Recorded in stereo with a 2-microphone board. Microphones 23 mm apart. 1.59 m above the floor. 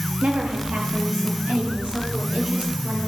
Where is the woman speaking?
80° right, 3 m; by 3.1 s 75° right (ahead or behind), 6 m.